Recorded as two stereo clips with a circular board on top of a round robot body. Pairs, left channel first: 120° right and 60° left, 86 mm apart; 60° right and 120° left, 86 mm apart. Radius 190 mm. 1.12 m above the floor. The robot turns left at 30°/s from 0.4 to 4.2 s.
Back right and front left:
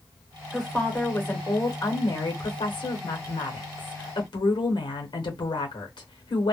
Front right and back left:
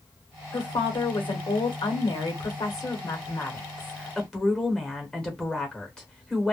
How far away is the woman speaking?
About 1.0 m.